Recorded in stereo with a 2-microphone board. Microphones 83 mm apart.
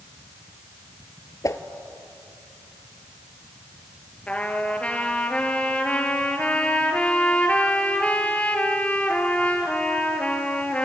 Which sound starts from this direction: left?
A whoosh, at 1.4 s.